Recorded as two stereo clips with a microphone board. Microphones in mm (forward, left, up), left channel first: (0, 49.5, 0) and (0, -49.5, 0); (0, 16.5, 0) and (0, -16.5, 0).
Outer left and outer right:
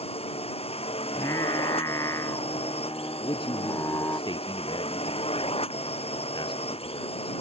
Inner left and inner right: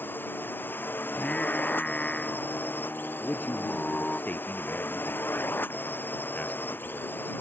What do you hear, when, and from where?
0.0 s a drone: 85° left
1.1 s singing: 35° left (ahead or behind)
3.2 s a man speaking: 60° left (ahead or behind)